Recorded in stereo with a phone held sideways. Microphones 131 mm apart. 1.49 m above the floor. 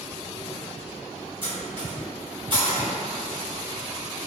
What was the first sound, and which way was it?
Cutlery clinking, 40° right (ahead or behind).